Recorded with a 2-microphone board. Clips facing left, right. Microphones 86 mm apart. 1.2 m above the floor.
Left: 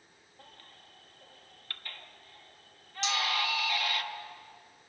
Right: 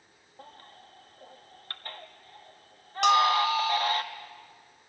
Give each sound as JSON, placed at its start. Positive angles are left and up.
{"t": 0.4, "sound": "a baby crying", "side_deg": -35, "distance_m": 1.2}
{"t": 3.0, "sound": "a bell", "side_deg": -60, "distance_m": 0.5}